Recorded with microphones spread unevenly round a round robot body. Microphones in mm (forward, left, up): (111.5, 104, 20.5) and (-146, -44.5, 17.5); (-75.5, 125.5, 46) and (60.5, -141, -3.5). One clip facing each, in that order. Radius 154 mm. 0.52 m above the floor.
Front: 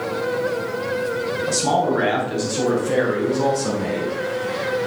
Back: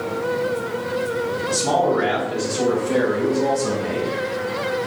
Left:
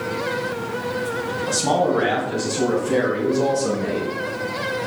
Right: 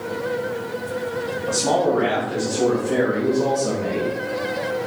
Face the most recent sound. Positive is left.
turn(degrees=55)